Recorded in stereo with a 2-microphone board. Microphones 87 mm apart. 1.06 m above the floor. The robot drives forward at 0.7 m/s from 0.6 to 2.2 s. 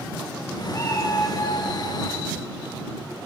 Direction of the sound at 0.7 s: 35° left (ahead or behind).